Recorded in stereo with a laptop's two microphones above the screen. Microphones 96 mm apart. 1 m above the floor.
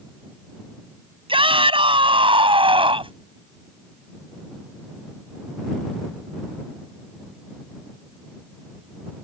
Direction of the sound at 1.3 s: 70° right (ahead or behind).